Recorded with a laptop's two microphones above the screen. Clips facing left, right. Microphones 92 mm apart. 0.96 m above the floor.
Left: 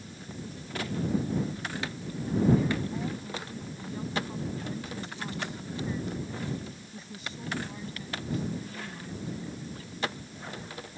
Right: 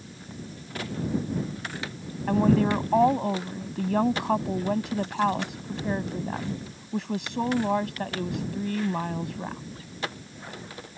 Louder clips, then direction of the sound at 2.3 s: Right 4 dB; 80° right.